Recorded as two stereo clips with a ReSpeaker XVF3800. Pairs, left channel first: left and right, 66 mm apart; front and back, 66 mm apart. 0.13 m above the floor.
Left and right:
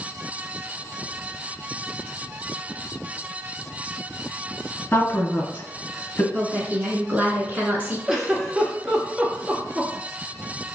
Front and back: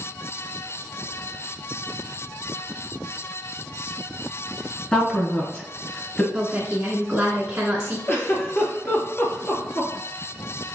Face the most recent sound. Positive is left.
turn(degrees=-15)